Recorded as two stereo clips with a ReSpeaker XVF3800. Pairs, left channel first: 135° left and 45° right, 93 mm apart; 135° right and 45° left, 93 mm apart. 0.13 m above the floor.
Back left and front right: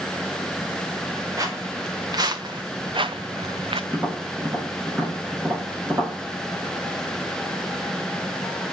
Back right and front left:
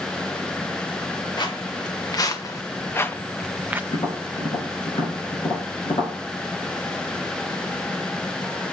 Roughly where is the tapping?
Behind right.